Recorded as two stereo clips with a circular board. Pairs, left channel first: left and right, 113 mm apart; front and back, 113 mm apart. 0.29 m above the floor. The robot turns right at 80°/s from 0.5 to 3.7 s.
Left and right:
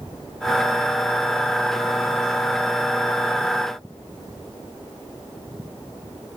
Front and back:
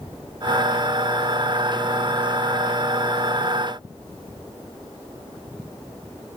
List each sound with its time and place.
Only background noise.